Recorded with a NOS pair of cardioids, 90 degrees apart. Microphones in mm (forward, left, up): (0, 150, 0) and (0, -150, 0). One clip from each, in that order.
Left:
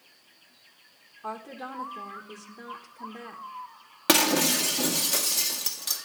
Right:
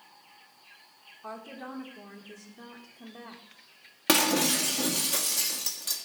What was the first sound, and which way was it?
A woman speaking, 25° left.